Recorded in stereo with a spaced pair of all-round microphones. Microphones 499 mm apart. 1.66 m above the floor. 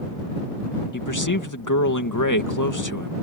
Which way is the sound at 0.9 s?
35° left (ahead or behind).